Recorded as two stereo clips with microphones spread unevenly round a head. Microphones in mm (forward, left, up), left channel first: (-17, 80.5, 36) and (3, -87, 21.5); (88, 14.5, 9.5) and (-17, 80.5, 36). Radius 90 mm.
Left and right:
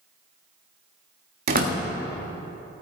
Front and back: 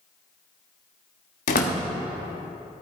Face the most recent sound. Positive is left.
turn(degrees=-45)